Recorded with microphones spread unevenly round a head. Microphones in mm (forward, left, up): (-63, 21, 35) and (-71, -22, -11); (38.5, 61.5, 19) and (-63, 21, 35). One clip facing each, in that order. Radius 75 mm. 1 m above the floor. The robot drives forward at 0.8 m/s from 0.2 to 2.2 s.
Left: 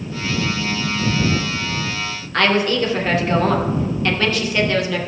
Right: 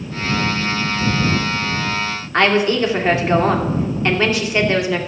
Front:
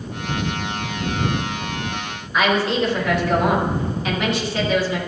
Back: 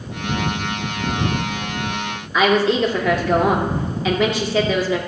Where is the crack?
I don't hear a crack.